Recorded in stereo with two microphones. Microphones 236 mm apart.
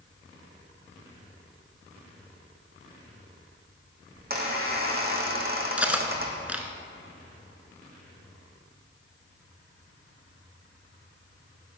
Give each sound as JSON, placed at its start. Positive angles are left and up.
{"t": 4.2, "sound": "a squeak", "side_deg": -40, "distance_m": 1.7}
{"t": 5.8, "sound": "cutlery clinking", "side_deg": -5, "distance_m": 0.7}